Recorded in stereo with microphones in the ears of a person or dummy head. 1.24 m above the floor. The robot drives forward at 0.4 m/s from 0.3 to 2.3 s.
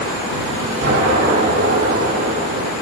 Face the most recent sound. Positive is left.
turn(degrees=-55)  # may be behind; listen again after turning